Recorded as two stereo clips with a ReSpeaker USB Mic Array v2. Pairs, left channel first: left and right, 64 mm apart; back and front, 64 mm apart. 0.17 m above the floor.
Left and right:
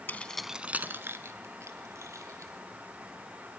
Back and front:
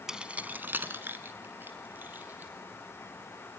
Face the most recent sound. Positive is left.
turn(degrees=-60)